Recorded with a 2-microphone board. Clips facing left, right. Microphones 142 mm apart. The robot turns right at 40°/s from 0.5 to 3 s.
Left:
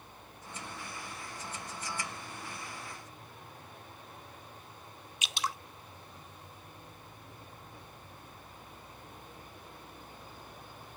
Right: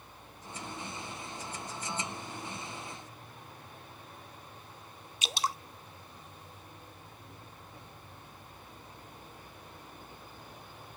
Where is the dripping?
35° right (ahead or behind).